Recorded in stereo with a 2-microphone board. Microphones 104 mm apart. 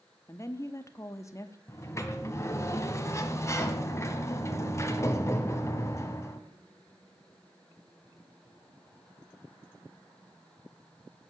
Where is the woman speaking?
30° left (ahead or behind), 0.7 m.